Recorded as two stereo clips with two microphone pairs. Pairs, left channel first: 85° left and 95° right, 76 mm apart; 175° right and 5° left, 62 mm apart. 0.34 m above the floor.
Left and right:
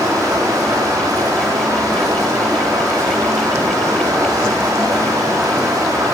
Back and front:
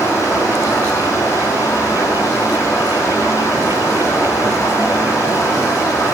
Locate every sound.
0.0 s running water: 140° right, 7 m